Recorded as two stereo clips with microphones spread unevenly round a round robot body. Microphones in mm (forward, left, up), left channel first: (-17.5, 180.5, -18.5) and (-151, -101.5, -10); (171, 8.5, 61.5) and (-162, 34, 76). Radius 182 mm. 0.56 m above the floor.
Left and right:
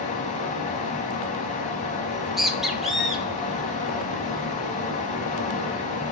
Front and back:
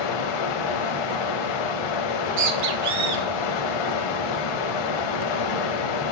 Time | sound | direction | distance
0.0 | running water | 5° right | 0.8 m
2.1 | a bird | 155° left | 1.5 m